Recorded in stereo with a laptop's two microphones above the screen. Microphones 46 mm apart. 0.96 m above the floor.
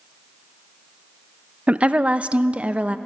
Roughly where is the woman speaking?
Right.